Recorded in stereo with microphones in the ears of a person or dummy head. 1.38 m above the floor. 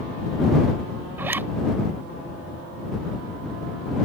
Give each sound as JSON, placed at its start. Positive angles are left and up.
{"t": 1.2, "sound": "a zipper", "side_deg": -15}